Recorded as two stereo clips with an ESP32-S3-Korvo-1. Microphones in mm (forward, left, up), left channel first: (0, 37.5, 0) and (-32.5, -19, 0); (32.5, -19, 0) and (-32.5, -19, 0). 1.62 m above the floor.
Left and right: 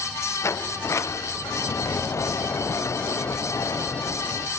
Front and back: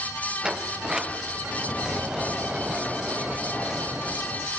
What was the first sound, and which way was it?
A sliding door, 100° left.